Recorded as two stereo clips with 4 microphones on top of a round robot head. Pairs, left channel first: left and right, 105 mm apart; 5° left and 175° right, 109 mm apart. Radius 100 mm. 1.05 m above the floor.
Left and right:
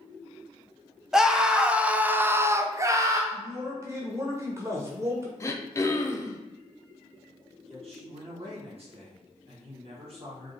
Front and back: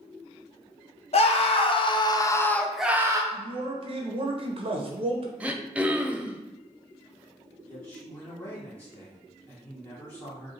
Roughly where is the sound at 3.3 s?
Behind right.